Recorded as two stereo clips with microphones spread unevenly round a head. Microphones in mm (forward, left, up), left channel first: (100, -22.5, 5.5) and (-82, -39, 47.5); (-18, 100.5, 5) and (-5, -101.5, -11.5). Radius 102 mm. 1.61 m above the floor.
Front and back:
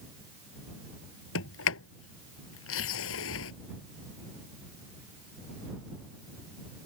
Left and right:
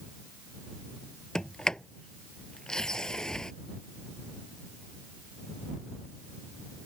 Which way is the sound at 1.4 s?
5° left.